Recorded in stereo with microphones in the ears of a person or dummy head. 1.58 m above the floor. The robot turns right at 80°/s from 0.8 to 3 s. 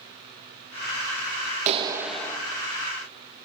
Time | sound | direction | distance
1.7 | a clap | 40° right | 2 m